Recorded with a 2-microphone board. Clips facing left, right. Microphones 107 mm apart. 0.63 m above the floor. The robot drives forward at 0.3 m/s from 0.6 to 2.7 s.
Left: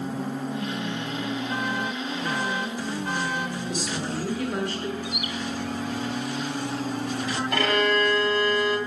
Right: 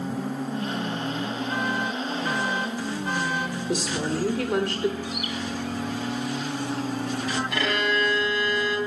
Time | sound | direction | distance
3.7 | a woman speaking | 70° right (ahead or behind) | 1.6 m
5.0 | a bird | 20° left (ahead or behind) | 1.8 m
7.5 | a violin | 45° left (ahead or behind) | 2.5 m